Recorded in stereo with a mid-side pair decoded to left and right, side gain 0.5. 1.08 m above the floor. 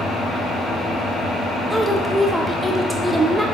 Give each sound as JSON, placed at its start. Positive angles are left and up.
{"t": 0.0, "sound": "an engine running", "azimuth_deg": 45, "distance_m": 2.0}
{"t": 1.7, "sound": "a woman speaking", "azimuth_deg": 0, "distance_m": 0.7}